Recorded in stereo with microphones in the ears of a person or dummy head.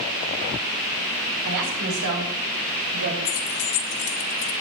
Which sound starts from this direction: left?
Keys jangling, at 3.2 s.